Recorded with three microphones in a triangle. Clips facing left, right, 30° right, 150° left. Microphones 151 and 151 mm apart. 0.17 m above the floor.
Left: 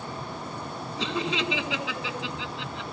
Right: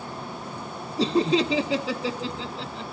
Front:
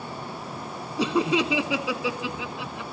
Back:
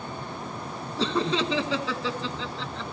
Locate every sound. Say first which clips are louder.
1.0 s laughter: right 9 dB, front 3 dB; 100° right, 1.3 m